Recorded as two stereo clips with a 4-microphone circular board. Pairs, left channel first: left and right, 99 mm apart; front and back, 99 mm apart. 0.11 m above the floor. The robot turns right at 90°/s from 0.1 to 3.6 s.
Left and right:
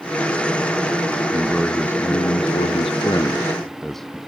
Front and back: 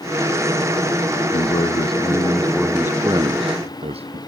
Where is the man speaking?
25° right; by 4.2 s straight behind.